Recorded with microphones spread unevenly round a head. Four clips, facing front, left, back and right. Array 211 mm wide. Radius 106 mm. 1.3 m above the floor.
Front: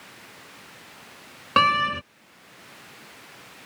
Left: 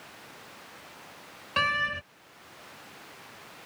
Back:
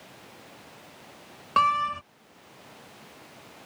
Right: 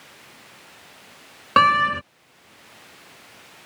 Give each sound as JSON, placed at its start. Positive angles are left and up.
{"t": 1.6, "sound": "a door slam", "azimuth_deg": -65}